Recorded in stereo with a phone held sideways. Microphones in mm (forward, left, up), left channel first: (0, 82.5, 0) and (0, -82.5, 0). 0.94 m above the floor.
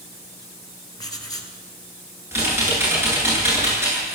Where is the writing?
25° left (ahead or behind), 3 m.